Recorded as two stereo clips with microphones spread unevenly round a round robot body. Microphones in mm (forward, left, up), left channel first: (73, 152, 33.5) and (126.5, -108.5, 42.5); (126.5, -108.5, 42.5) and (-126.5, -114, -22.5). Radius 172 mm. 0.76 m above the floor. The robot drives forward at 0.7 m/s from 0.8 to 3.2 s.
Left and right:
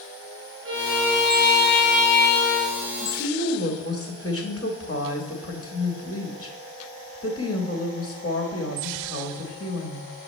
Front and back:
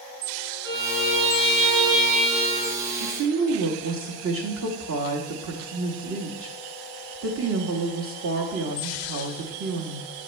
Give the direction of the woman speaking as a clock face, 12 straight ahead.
6 o'clock.